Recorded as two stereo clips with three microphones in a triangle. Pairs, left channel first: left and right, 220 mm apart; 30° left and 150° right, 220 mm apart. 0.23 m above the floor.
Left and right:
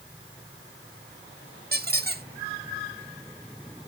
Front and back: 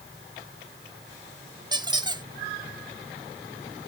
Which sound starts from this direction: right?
A squeak, at 1.7 s.